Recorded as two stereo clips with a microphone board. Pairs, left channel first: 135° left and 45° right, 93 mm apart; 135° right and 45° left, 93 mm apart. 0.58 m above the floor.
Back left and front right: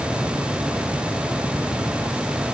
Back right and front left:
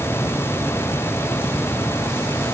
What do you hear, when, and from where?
Only background noise.